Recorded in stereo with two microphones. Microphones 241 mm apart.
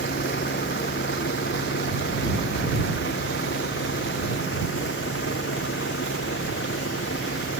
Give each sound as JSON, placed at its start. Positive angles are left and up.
{"t": 0.0, "sound": "a vehicle", "side_deg": 50}